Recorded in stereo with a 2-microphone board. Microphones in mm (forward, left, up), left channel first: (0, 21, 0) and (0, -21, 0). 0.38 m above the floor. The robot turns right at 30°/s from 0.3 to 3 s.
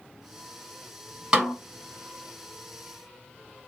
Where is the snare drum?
20° right (ahead or behind), 1.1 m; by 1.6 s 10° right (ahead or behind), 1.1 m.